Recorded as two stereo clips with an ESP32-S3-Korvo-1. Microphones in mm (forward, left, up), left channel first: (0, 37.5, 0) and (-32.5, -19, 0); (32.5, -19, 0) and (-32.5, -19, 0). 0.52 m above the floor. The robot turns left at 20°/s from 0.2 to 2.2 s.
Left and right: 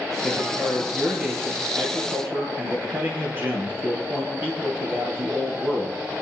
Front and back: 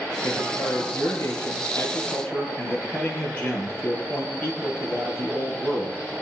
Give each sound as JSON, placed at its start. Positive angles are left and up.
{"t": 0.2, "sound": "a man speaking", "azimuth_deg": -25, "distance_m": 8.5}